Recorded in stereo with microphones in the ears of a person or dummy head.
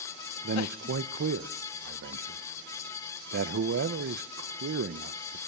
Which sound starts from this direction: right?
A man speaking, at 0.4 s.